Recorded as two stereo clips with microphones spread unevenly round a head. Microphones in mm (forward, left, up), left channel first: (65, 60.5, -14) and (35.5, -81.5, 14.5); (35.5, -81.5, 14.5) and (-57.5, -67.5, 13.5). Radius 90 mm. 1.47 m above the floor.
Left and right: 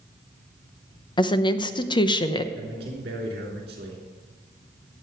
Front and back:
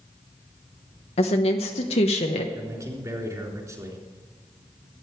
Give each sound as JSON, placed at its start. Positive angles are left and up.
{"t": 1.2, "sound": "a woman speaking", "azimuth_deg": 15, "distance_m": 0.9}
{"t": 2.5, "sound": "a man speaking", "azimuth_deg": -135, "distance_m": 3.5}